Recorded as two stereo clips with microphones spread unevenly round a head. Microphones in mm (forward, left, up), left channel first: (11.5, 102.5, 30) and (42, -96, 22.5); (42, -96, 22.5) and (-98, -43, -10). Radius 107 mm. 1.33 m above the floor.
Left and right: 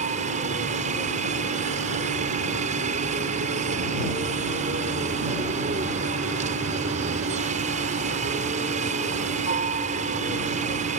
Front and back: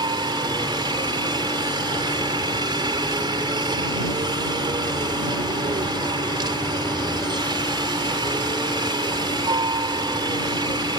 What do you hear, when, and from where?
0.0 s a helicopter: 140° right